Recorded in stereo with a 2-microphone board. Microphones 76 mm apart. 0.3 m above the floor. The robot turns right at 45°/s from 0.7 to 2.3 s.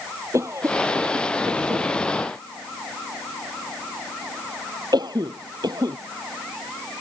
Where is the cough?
40° right (ahead or behind); by 6.0 s 65° right (ahead or behind).